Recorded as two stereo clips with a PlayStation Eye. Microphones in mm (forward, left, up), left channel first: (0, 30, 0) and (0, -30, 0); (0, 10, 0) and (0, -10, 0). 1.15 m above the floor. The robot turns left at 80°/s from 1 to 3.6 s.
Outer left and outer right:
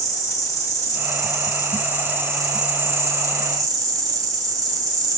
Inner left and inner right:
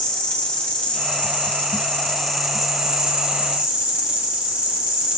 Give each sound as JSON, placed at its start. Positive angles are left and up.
{"t": 0.0, "sound": "an insect", "azimuth_deg": 115, "distance_m": 1.4}